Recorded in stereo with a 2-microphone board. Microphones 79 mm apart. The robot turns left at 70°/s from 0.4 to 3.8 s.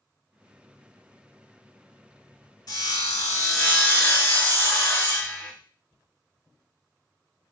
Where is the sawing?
105° left, 0.7 m; by 5.5 s 30° left, 0.7 m.